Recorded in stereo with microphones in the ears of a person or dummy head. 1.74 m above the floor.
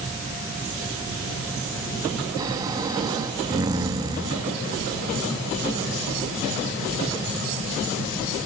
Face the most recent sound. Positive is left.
turn(degrees=-25)  # may be behind; listen again after turning